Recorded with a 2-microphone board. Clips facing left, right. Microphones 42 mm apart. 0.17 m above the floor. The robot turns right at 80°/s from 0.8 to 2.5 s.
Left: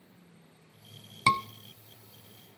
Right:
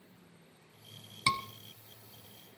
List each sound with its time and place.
1.3 s a scream: 25° left (ahead or behind), 1.1 m